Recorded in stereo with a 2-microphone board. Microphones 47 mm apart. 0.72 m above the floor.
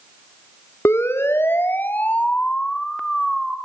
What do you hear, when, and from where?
0.8 s a siren: 65° left (ahead or behind), 2.5 m; by 3.6 s centre (ahead or behind), 3 m